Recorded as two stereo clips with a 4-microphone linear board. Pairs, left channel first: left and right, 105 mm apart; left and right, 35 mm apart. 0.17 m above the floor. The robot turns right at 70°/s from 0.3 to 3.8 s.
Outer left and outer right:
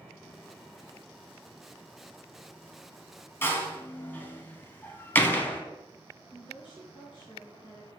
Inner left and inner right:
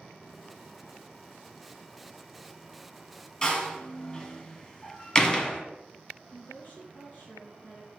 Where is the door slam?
20° left (ahead or behind), 0.8 m.